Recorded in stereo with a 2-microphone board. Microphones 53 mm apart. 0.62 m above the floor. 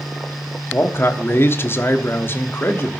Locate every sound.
0.7 s a man speaking: 45° left (ahead or behind), 1.2 m